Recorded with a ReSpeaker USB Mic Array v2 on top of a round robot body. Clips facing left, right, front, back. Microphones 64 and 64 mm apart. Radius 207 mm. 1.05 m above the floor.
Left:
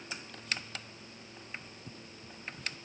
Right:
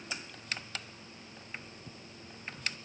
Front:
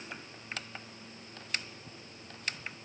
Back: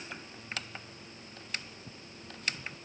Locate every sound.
Only background noise.